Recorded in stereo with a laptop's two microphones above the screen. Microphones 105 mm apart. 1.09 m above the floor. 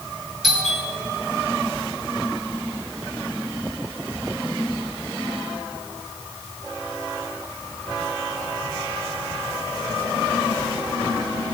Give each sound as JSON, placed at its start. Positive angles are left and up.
{"t": 0.4, "sound": "a doorbell", "side_deg": -5, "distance_m": 5.0}